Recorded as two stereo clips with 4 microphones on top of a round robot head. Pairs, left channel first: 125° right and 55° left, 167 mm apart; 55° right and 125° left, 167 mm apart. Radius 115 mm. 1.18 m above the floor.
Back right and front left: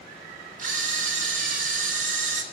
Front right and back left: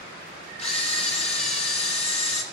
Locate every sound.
0.6 s a camera shutter: 5° left, 2.5 m